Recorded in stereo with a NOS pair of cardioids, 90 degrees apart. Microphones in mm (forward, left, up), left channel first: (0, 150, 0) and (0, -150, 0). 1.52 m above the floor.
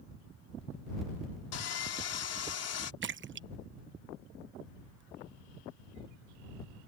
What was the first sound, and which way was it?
Sawing, 55° left.